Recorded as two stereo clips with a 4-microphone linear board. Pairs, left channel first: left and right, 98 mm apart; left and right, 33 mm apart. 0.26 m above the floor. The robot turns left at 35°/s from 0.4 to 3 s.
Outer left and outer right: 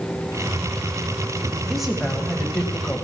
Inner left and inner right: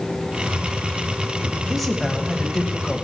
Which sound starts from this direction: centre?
A woman speaking, at 1.7 s.